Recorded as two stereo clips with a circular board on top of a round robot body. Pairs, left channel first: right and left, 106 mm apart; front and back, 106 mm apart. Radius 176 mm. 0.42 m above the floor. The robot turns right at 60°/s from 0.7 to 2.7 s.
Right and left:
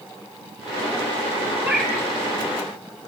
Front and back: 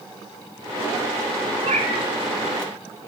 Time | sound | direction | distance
1.6 | a cat meowing | 160° left | 3 m